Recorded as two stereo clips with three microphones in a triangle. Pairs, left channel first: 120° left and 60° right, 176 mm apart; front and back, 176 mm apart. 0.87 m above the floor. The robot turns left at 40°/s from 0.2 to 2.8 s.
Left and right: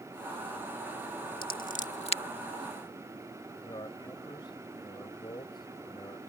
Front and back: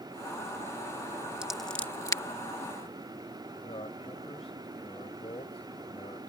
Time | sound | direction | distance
1.4 | scissors | 95° left | ?
3.6 | a man speaking | 55° left | ?